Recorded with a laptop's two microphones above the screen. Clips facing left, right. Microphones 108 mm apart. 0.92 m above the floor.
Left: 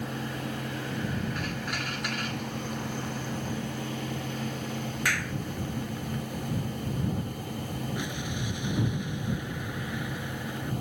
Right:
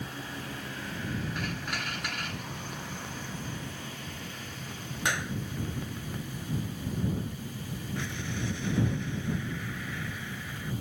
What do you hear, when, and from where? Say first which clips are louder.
0.0 s a fan: left 5 dB; 65° left (ahead or behind)
5.0 s a clap: right 3 dB; 20° right (ahead or behind)
8.0 s an explosion: left 2 dB; 15° left (ahead or behind)